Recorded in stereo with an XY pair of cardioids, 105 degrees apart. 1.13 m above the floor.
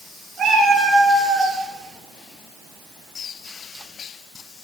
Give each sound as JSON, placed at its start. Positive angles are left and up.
{"t": 0.4, "sound": "a cat meowing", "azimuth_deg": -65, "distance_m": 6.0}